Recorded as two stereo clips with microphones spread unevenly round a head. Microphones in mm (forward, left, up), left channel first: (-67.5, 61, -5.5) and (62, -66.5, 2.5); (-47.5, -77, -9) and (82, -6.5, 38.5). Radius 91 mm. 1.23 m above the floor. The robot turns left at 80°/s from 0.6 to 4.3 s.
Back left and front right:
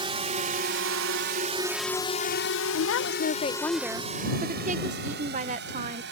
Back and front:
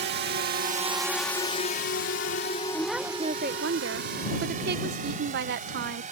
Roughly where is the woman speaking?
Behind left.